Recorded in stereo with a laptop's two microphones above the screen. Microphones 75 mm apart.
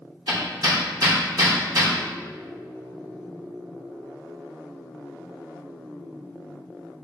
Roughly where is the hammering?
Right.